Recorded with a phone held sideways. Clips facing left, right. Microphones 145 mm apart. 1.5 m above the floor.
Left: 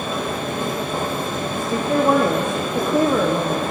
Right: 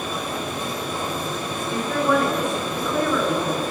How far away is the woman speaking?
About 0.9 m.